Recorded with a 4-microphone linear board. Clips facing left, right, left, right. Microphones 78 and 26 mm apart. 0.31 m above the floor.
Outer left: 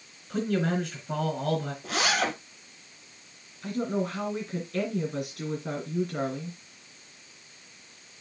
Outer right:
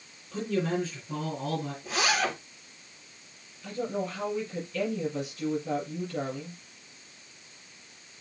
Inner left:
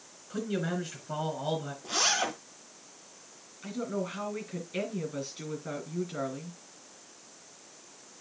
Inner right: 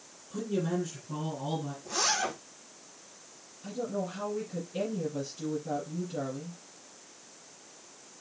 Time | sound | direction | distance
0.3 | a man speaking | 65° left (ahead or behind) | 4 m
1.8 | a zipper | 70° left (ahead or behind) | 4.5 m
3.6 | a woman speaking | 70° left (ahead or behind) | 4.5 m